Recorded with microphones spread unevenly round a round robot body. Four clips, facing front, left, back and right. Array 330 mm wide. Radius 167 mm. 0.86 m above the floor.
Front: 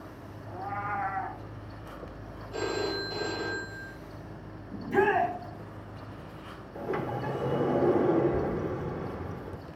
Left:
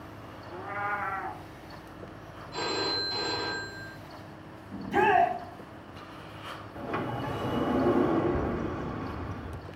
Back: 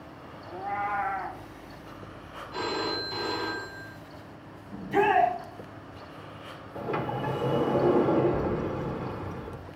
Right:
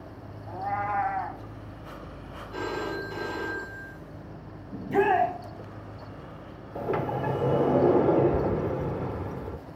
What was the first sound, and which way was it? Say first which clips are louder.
A cat meowing: right 5 dB, back 3 dB; 95° right.